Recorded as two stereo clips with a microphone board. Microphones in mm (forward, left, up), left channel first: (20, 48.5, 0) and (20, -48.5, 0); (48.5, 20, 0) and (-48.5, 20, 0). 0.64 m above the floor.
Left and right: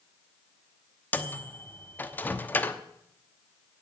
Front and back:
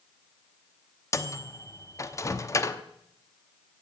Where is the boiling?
I don't hear boiling.